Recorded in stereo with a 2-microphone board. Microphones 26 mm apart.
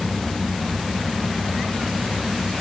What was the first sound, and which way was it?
Only background noise.